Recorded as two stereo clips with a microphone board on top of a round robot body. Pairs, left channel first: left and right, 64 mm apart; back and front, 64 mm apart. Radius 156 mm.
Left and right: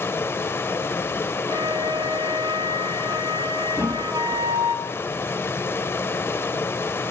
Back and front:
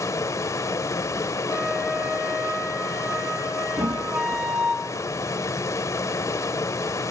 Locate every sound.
0.0 s running water: 145° left, 1.1 m
1.5 s a flute: 75° right, 4.5 m
3.8 s a thud: 5° left, 0.7 m